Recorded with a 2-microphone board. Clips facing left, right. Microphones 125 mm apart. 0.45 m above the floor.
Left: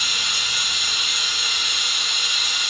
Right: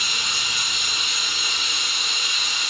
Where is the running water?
20° right (ahead or behind), 1.9 m.